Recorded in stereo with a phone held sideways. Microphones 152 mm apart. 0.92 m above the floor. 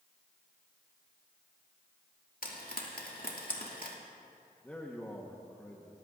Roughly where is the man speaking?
Centre.